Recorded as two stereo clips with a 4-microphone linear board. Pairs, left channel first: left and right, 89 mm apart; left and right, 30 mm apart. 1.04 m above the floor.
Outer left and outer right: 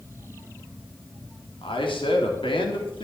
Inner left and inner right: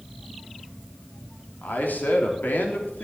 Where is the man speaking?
75° left (ahead or behind), 3 m.